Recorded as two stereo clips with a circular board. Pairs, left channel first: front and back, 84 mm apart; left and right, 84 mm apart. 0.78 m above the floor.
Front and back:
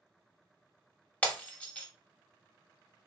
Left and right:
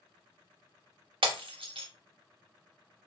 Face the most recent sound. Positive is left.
turn(degrees=-75)